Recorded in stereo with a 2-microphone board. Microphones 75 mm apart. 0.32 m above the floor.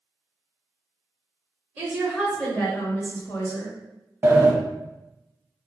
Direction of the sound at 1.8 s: 20° right (ahead or behind).